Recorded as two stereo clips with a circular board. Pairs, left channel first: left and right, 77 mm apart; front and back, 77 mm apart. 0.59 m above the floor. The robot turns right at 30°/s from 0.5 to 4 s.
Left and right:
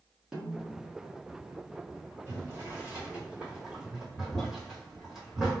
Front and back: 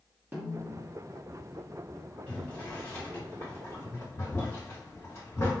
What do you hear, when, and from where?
0.3 s a snare drum: 155° right, 1.1 m; by 0.8 s 145° right, 1.1 m
2.3 s boiling: 65° right, 1.3 m; by 5.6 s 15° right, 1.3 m